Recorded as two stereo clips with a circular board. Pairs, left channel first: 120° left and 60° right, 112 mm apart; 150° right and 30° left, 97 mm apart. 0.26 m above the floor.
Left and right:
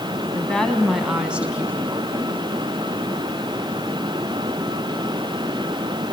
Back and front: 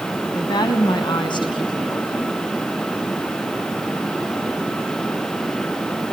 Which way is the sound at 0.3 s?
165° right.